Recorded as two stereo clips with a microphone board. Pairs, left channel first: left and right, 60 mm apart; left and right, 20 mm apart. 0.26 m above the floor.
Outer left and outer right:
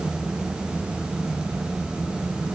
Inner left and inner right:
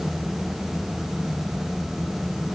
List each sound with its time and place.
Only background noise.